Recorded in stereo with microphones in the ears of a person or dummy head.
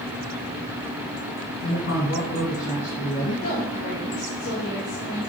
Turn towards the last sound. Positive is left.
turn(degrees=35)  # may be behind; listen again after turning